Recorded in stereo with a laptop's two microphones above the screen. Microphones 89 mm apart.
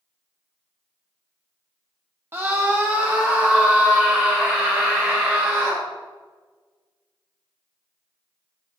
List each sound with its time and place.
2.3 s a scream: 25° right (ahead or behind), 0.7 m; by 5.8 s 10° right (ahead or behind), 2.5 m